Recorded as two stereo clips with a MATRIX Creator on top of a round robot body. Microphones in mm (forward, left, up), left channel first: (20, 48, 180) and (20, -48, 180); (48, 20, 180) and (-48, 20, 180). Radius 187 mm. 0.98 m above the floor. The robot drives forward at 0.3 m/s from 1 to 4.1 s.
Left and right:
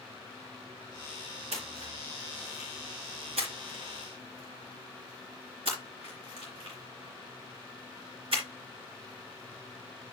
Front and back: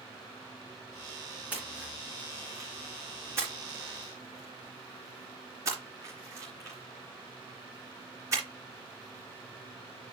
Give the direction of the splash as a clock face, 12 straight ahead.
3 o'clock.